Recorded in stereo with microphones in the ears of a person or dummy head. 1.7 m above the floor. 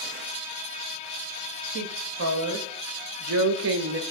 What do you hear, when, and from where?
1.7 s a woman speaking: 65° right (ahead or behind), 2.5 m; by 4.0 s 70° right (ahead or behind), 1.3 m